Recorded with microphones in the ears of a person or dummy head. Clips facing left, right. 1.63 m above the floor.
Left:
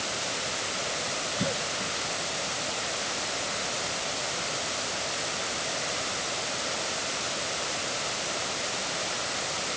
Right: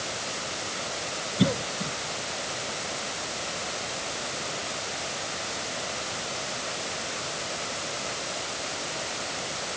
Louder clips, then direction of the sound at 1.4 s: Right 8 dB; 35° right (ahead or behind).